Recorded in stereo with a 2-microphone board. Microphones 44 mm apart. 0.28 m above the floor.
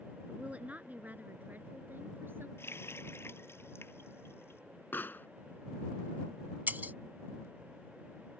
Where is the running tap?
60° left (ahead or behind).